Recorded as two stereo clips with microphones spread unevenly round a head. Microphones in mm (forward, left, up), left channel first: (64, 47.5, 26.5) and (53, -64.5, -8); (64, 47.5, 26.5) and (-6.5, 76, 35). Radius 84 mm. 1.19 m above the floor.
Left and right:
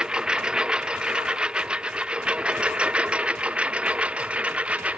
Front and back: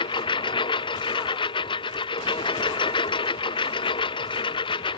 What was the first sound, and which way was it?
A lawn mower, 15° right.